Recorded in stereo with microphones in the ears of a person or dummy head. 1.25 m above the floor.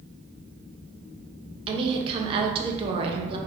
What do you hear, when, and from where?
1.7 s a woman speaking: 30° right (ahead or behind), 0.7 m